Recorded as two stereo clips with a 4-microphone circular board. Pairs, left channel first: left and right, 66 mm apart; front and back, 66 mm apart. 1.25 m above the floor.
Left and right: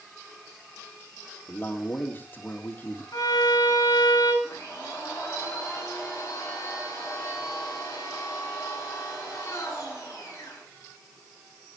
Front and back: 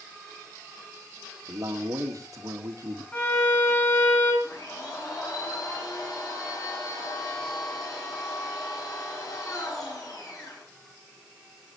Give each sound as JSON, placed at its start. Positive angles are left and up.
{"t": 1.5, "sound": "a man speaking", "azimuth_deg": 150, "distance_m": 2.5}
{"t": 3.1, "sound": "a violin", "azimuth_deg": 60, "distance_m": 8.0}
{"t": 4.4, "sound": "a blender", "azimuth_deg": 40, "distance_m": 9.5}